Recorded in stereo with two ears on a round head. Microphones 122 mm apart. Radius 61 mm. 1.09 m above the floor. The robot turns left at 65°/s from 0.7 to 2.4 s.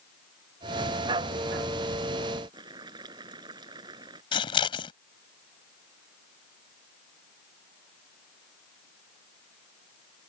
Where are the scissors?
35° left (ahead or behind).